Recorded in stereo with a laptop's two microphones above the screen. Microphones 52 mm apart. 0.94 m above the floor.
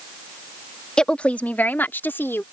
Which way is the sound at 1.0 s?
15° left (ahead or behind).